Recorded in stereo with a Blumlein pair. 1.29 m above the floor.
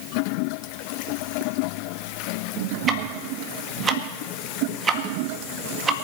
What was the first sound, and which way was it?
Ticking, 20° right.